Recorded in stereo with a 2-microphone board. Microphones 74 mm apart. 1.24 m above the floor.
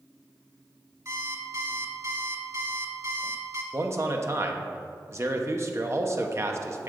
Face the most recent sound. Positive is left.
turn(degrees=-40)  # may be behind; listen again after turning